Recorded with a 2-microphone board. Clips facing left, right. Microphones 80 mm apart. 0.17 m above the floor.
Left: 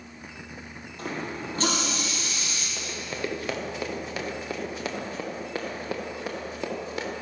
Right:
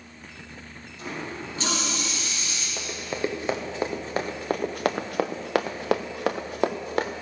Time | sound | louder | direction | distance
1.0 | a running tap | left 1 dB | 50° left (ahead or behind) | 3.5 m
2.8 | running footsteps | right 4 dB | 15° right (ahead or behind) | 2 m